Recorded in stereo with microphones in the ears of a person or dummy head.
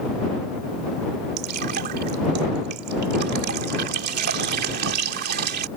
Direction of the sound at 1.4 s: 55° right (ahead or behind).